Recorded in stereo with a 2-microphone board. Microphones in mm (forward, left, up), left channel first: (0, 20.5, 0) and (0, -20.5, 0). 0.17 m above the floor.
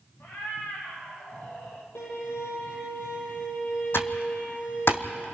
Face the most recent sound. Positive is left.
turn(degrees=65)  # may be behind; listen again after turning